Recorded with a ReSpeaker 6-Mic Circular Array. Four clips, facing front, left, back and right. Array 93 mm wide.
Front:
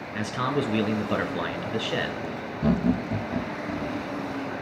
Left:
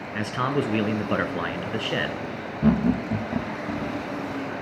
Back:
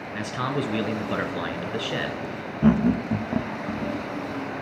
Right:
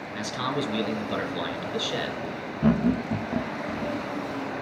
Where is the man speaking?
95° left, 1.5 m.